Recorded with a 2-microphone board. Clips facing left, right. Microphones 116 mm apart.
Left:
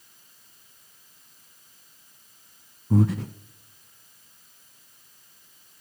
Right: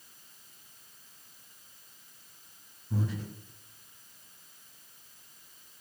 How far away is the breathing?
About 0.6 m.